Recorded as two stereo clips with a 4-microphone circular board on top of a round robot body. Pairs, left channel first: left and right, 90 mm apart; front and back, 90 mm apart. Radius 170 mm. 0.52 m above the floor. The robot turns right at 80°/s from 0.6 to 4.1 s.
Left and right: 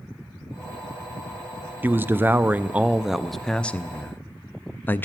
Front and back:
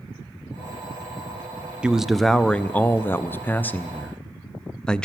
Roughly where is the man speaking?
Behind right.